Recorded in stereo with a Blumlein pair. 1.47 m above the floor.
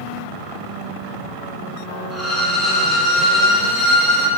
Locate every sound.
2.1 s a violin: straight ahead, 0.6 m